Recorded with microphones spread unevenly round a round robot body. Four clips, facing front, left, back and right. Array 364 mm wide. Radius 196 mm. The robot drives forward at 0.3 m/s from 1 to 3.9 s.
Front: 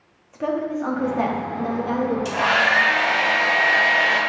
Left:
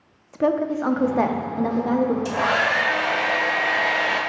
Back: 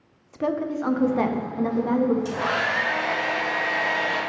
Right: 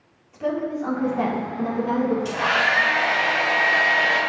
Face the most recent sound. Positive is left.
turn(degrees=75)